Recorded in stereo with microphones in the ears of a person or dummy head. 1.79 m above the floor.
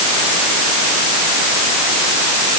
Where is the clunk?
I don't hear a clunk.